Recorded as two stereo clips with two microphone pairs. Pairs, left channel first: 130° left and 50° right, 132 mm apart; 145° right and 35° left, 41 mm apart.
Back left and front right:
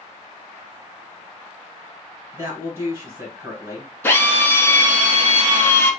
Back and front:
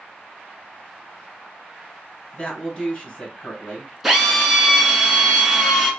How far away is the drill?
About 0.9 m.